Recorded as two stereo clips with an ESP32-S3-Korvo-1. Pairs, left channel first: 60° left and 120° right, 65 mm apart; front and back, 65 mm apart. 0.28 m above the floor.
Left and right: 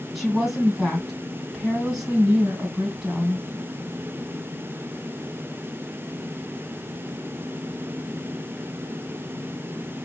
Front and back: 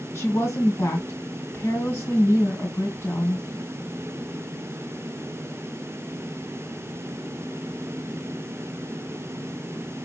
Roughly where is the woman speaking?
Ahead right.